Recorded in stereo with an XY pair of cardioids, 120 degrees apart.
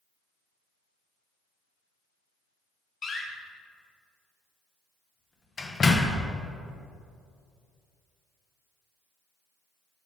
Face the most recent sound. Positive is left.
turn(degrees=35)